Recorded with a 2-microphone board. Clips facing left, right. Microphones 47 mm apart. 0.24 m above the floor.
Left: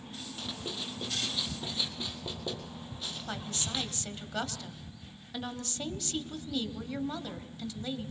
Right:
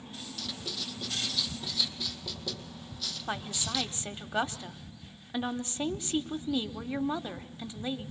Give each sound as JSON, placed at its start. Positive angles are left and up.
{"t": 0.4, "sound": "writing", "side_deg": 30, "distance_m": 2.0}
{"t": 3.3, "sound": "a woman speaking", "side_deg": -20, "distance_m": 1.0}